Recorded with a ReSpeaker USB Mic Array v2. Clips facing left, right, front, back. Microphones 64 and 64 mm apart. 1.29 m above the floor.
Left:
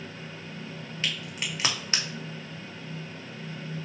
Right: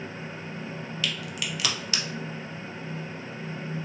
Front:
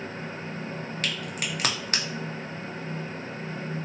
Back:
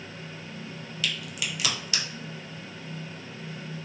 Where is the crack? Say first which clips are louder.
Even, back 1 dB; 35° left, 0.6 m.